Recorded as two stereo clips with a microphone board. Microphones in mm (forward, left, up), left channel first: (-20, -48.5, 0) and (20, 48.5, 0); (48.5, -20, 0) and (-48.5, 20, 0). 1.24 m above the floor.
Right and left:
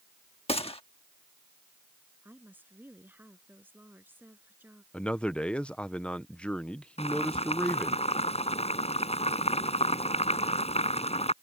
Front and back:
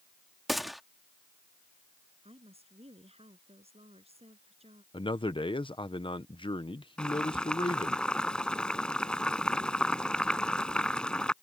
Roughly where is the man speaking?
Ahead right.